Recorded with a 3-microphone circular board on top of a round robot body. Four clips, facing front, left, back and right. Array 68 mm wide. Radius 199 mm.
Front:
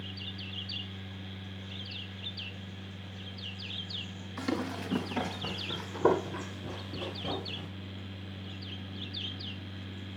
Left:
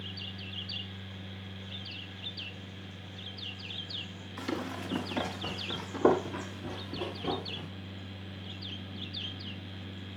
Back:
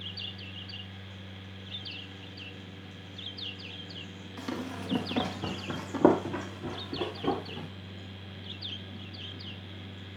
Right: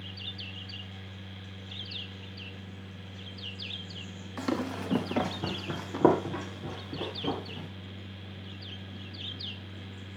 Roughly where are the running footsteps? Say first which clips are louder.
Right 4 dB, front 3 dB; right.